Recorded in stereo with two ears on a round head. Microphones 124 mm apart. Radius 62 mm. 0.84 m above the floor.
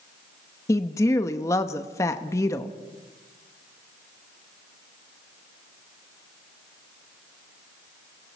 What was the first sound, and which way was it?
A woman speaking, 20° left (ahead or behind).